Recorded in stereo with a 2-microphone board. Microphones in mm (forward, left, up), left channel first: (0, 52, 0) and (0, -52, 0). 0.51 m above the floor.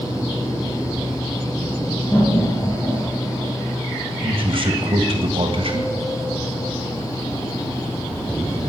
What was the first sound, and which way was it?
Laughter, 35° left (ahead or behind).